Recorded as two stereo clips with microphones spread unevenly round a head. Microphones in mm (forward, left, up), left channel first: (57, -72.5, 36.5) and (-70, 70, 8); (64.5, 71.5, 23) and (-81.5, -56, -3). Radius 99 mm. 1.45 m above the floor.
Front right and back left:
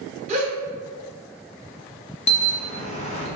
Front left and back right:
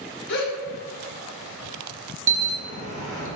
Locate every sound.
0.3 s a gasp: 70° left, 0.7 m
2.3 s an alarm: 85° right, 0.6 m